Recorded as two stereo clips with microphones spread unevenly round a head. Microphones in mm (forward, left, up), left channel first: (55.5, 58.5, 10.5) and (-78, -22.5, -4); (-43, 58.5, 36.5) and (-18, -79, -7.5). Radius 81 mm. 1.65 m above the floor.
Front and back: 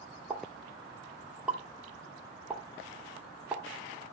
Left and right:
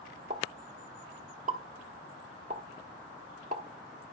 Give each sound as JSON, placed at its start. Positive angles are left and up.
{"t": 0.3, "sound": "a pop", "azimuth_deg": -65, "distance_m": 1.3}